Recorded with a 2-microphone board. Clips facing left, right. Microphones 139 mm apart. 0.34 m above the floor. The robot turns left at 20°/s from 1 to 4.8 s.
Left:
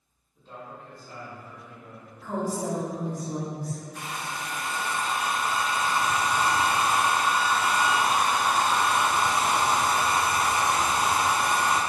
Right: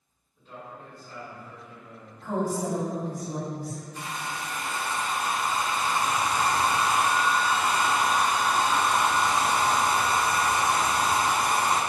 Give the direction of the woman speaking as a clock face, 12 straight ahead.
5 o'clock.